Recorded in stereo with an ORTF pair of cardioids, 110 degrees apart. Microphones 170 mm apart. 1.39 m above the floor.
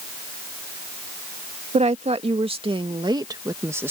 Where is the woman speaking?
40° right; by 3.9 s 10° right.